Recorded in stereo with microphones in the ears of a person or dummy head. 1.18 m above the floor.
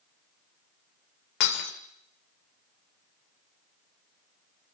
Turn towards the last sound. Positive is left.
turn(degrees=50)  # may be behind; listen again after turning